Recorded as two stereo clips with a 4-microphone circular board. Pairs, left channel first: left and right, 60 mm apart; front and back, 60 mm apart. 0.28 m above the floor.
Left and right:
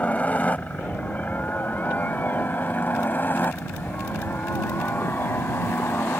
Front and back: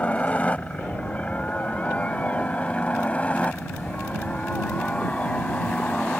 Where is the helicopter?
45° left; by 6.2 s 60° left.